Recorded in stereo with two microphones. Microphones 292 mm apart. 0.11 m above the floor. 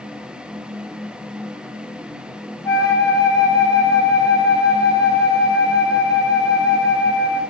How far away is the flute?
About 10 m.